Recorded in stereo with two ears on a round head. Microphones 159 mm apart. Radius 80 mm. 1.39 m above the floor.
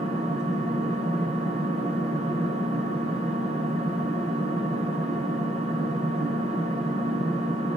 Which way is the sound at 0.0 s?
45° right (ahead or behind).